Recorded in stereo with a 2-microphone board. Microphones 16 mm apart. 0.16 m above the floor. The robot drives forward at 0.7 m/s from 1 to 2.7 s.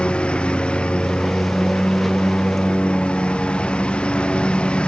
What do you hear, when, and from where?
0.0 s a lawn mower: 85° left